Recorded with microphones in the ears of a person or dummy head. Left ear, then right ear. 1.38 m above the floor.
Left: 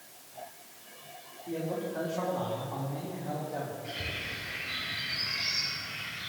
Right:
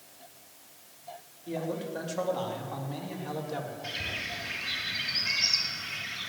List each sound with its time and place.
1.5 s a man speaking: 85° right, 3.5 m; by 3.7 s 55° right (ahead or behind), 2.5 m
3.8 s a bird: 80° right, 2.5 m